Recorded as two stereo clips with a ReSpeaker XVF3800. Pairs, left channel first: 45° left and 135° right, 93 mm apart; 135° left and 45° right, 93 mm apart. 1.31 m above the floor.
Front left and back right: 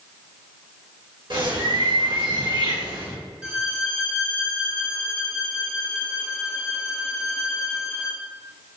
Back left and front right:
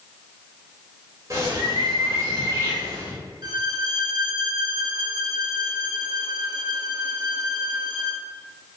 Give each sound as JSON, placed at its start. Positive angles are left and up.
{"t": 1.3, "sound": "a bird", "azimuth_deg": -100, "distance_m": 3.0}
{"t": 3.4, "sound": "a violin", "azimuth_deg": -65, "distance_m": 1.5}